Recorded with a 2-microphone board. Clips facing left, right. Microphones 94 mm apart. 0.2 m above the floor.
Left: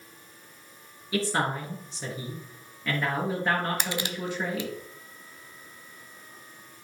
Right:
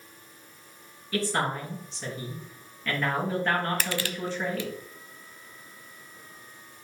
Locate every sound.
1.1 s a man speaking: 10° left (ahead or behind), 3.5 m
3.8 s crushing: 20° left (ahead or behind), 0.5 m